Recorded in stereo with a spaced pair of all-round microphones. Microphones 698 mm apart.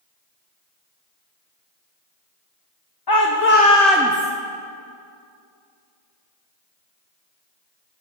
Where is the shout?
35° left (ahead or behind), 0.9 m; by 4.3 s 15° right (ahead or behind), 0.8 m.